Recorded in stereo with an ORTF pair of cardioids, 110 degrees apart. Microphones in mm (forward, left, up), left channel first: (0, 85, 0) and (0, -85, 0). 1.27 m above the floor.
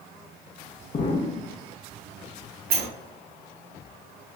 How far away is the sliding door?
About 1.1 m.